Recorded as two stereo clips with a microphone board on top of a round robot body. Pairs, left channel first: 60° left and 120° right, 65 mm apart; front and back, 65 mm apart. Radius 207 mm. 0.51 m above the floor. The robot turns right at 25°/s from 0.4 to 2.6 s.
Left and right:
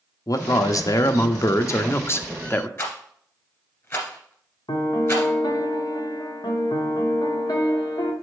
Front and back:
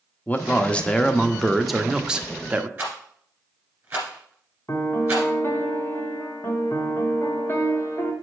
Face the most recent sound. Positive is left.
turn(degrees=55)